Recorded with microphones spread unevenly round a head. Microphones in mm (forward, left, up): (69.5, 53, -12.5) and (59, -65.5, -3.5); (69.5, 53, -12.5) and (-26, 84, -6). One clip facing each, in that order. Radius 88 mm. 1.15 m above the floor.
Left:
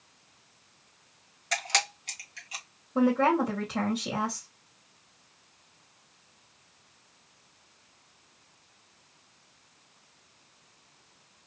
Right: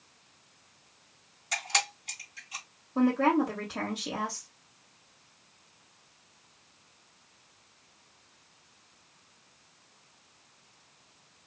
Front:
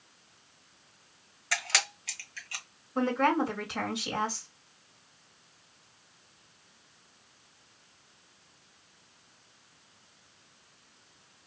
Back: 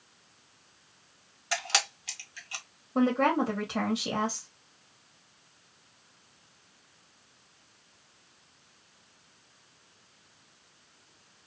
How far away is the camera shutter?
About 1.4 m.